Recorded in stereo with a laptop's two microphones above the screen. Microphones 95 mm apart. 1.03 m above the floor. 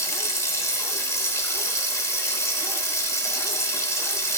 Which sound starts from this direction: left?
Running water, at 0.0 s.